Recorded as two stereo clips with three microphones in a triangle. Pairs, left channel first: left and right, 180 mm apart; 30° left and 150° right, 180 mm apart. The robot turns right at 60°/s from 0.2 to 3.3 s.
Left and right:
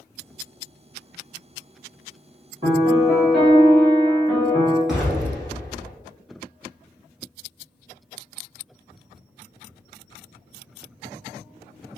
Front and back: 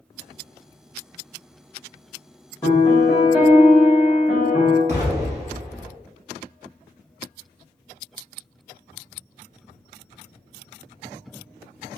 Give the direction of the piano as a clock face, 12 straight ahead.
1 o'clock.